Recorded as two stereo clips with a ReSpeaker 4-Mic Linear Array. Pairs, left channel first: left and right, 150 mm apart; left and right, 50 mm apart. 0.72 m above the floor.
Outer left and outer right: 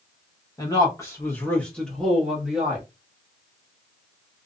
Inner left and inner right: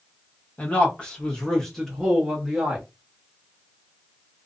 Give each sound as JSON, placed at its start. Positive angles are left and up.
{"t": 0.6, "sound": "a man speaking", "side_deg": 25, "distance_m": 1.0}